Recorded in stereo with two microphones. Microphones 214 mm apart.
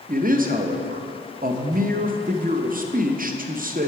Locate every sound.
0.1 s a man speaking: 40° right (ahead or behind), 0.6 m